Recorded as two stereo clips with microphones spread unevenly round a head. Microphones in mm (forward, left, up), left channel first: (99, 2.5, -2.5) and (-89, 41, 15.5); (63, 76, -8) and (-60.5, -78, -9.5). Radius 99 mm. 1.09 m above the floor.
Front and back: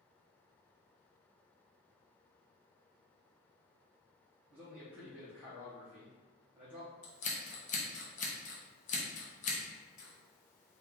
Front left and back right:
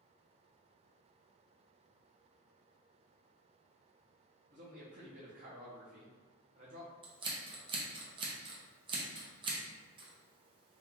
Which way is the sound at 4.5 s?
105° right.